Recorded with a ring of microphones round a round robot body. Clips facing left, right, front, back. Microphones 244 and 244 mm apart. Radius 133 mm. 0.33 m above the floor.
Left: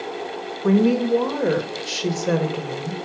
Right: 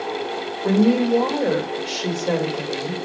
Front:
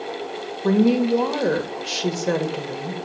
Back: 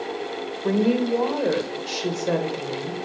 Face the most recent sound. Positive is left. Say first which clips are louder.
# right 1 dB, front 3 dB
turn(degrees=45)